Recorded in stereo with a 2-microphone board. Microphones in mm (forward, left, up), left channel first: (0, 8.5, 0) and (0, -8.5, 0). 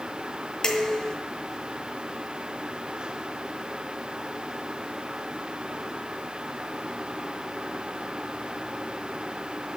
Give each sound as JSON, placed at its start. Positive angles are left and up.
{"t": 0.6, "sound": "dishes clattering", "side_deg": 30, "distance_m": 3.0}